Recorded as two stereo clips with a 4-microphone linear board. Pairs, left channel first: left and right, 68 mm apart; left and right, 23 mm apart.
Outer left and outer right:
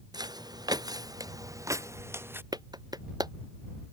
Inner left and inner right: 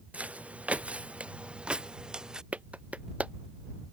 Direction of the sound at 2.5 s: 80° right.